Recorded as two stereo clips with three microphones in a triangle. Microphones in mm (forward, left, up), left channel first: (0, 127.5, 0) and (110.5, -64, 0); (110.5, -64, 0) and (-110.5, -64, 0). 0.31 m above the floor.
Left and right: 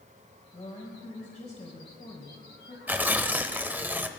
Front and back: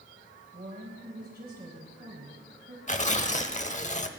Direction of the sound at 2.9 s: 15° left.